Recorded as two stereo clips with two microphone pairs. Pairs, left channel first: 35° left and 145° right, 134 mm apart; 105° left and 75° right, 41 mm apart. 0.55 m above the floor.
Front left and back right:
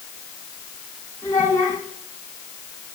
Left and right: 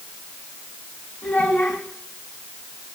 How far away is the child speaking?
About 3.5 m.